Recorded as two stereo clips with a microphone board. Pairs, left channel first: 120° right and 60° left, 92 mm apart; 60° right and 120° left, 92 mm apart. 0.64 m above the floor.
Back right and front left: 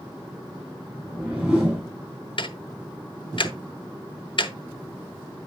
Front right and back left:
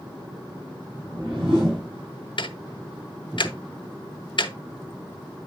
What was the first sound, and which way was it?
A whoosh, 140° left.